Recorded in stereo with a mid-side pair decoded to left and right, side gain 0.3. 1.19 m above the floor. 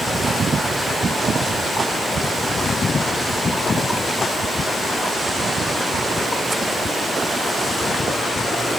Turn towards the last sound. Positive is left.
No sound to turn to.